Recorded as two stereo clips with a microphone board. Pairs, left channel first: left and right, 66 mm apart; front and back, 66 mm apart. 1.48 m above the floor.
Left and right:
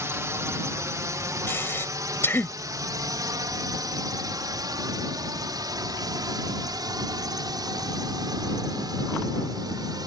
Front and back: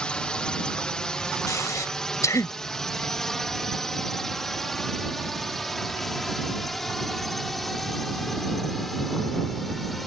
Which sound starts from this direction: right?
A drone, at 0.0 s.